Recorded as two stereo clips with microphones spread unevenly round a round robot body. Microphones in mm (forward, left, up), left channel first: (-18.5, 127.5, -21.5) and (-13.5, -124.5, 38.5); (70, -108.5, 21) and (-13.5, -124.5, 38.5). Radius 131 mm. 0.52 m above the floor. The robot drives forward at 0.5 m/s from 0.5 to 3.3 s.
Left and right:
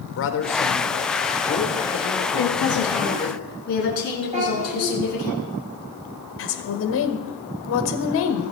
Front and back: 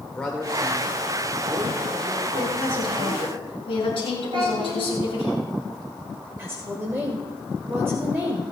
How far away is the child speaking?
About 7.5 m.